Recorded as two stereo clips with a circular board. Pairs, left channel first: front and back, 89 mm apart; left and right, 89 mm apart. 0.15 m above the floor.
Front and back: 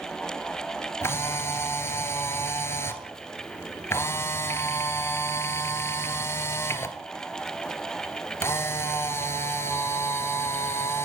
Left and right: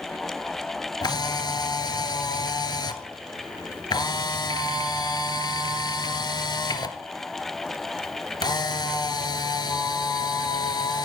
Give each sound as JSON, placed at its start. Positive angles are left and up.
{"t": 1.0, "sound": "a camera shutter", "azimuth_deg": 60, "distance_m": 0.8}